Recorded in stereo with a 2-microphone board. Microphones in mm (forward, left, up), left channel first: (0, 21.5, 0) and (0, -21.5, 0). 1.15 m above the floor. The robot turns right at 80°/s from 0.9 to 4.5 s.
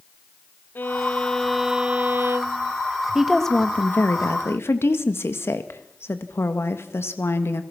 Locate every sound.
0.8 s a violin: 130° left, 0.9 m; by 2.7 s 80° right, 0.9 m
3.1 s a woman speaking: 10° right, 1.8 m; by 7.6 s 100° left, 1.8 m